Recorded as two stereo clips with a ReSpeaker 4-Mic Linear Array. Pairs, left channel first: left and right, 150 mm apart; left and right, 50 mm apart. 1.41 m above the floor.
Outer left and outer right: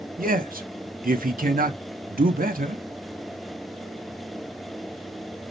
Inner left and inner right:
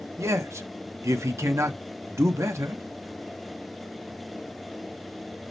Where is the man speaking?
75° right (ahead or behind), 0.6 m.